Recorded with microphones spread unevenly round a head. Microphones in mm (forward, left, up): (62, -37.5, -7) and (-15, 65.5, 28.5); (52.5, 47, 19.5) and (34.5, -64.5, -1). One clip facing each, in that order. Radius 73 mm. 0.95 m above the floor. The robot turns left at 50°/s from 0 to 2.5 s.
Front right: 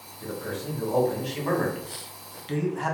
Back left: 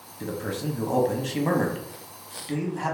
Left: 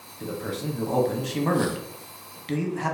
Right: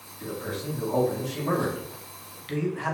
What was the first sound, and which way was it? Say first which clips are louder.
A man speaking: back left 3 dB, left 2 dB; 145° left.